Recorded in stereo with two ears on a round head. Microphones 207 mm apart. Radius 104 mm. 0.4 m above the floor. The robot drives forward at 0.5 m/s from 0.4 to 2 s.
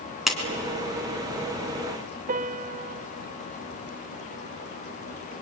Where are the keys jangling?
I don't hear keys jangling.